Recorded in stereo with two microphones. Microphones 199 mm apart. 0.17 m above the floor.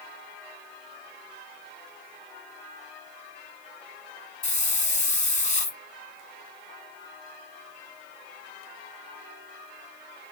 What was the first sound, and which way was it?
A hiss, 40° left (ahead or behind).